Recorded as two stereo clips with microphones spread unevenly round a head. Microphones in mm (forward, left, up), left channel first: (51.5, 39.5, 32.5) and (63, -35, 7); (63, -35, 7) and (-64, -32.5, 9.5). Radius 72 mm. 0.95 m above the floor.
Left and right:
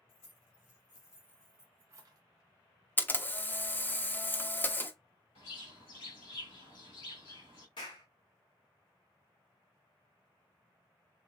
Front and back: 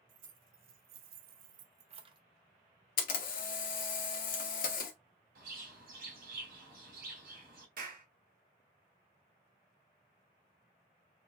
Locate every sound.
0.1 s keys jangling: 140° left, 1.3 m; by 2.2 s 125° right, 0.8 m
3.0 s a camera shutter: 30° left, 1.0 m
5.3 s a bird: 145° left, 2.5 m
7.8 s a clap: 150° left, 2 m